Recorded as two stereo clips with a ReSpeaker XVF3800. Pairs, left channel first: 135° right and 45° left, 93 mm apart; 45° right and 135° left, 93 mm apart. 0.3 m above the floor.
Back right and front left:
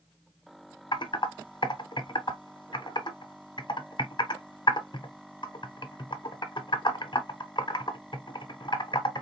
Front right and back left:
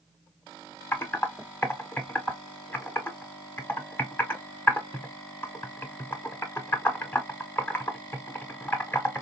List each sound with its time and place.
0.9 s typing on a keyboard: 110° right, 0.8 m